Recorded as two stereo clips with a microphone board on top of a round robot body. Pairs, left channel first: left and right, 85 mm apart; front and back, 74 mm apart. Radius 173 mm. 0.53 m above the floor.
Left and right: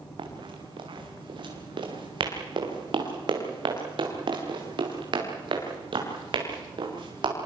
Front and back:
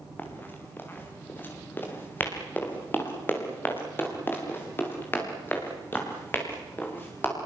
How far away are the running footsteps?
About 5.5 m.